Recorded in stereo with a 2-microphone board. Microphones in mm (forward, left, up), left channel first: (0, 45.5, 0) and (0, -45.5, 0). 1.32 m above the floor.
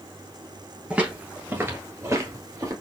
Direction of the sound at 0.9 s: 10° right (ahead or behind).